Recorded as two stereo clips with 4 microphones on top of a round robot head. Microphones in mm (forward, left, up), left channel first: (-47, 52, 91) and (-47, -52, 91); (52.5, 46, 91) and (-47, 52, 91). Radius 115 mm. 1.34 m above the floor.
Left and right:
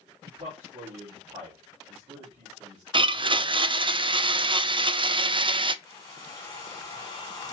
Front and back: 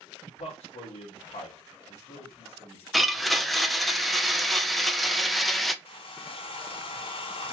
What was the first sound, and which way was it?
A man speaking, 30° right.